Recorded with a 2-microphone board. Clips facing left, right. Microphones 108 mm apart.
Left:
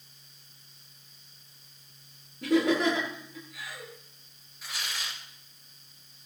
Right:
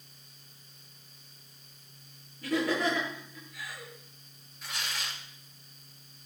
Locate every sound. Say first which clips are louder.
2.4 s laughter: left 5 dB; 85° left, 9.5 m
4.6 s tearing paper: even; centre (ahead or behind), 2.5 m